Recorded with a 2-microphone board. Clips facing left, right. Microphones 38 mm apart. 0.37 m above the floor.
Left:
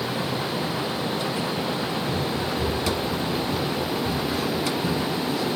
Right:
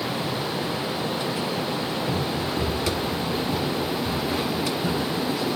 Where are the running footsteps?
45° right (ahead or behind), 7.5 m; by 5.5 s 30° right (ahead or behind), 11.5 m.